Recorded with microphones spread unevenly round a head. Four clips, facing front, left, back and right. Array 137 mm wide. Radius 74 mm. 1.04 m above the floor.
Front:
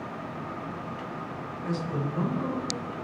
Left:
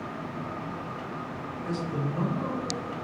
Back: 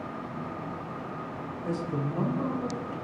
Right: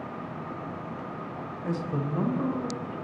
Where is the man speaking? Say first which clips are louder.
Right 1 dB, even; 95° right, 0.5 m; by 2.9 s 135° right, 1.1 m.